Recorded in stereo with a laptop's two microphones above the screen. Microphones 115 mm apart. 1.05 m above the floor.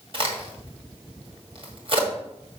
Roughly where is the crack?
Right.